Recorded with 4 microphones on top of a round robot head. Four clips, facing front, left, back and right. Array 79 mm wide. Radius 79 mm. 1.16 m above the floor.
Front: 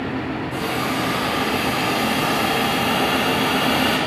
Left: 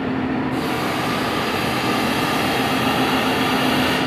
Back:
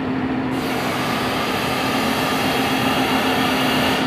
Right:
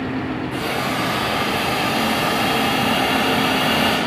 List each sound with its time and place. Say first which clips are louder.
0.5 s a hiss: left 1 dB, back 1 dB; 115° right, 3 m